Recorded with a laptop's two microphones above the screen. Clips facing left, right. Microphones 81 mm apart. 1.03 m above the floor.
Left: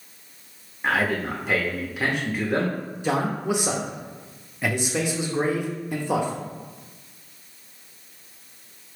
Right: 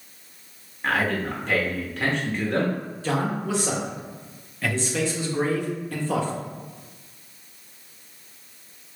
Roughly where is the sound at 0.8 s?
Centre.